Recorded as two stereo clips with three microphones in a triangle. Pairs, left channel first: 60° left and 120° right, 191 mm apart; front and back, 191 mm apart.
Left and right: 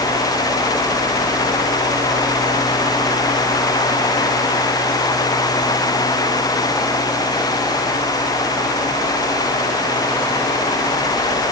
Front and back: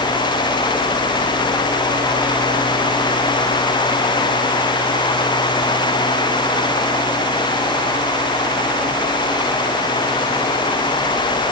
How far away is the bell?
No bell in this recording.